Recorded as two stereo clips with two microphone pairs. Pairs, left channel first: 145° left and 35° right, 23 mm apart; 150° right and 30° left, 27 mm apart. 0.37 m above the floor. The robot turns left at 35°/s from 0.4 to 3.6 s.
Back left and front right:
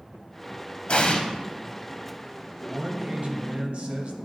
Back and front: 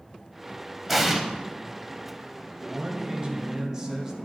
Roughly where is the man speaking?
Ahead.